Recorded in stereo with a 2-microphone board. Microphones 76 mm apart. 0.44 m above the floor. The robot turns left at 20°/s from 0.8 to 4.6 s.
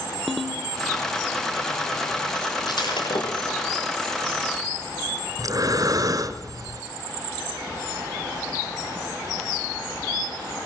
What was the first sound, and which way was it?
A ringtone, centre (ahead or behind).